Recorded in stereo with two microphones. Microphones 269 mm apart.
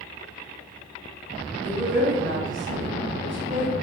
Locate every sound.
1.6 s a woman speaking: 45° right (ahead or behind), 1.6 m